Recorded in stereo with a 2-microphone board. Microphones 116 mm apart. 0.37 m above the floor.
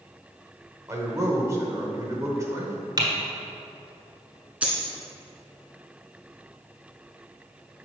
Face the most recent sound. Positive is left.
turn(degrees=-10)  # may be behind; listen again after turning